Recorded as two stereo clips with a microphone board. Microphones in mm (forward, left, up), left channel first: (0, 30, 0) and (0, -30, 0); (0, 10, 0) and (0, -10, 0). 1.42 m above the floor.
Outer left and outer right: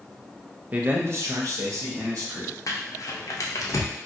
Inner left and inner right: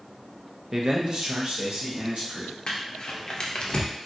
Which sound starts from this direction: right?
A man speaking, at 0.7 s.